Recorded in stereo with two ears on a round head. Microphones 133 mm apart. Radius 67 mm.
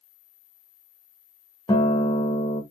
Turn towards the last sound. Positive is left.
turn(degrees=20)  # may be behind; listen again after turning